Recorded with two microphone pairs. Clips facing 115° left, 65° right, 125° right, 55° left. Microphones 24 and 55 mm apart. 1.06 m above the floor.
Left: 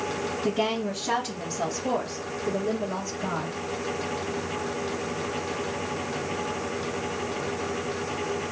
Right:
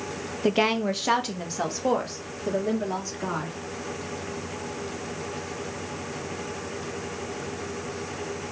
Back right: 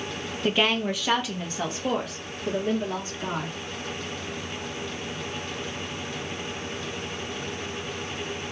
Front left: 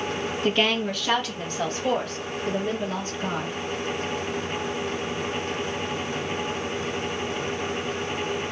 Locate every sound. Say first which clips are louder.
0.4 s a woman speaking: right 5 dB, even; 45° right, 0.5 m